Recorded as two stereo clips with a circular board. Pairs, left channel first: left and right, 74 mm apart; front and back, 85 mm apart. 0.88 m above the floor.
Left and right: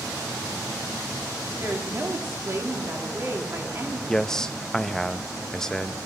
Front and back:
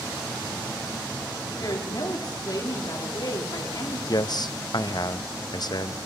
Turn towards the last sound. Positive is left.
turn(degrees=10)